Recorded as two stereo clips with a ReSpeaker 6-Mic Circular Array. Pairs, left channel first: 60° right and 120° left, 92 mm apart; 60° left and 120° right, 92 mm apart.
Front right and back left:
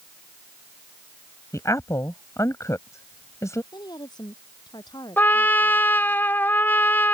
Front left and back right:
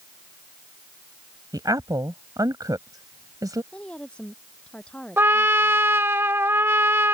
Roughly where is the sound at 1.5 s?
Right.